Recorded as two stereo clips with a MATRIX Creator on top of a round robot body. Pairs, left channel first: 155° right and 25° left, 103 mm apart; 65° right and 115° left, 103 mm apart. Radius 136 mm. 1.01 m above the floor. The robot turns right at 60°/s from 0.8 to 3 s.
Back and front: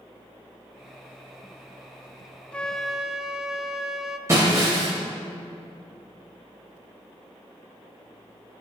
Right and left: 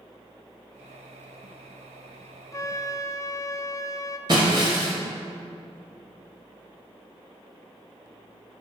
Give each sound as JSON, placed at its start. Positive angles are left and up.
{"t": 2.5, "sound": "a flute", "azimuth_deg": -90, "distance_m": 0.6}
{"t": 4.3, "sound": "breaking glass", "azimuth_deg": 75, "distance_m": 0.8}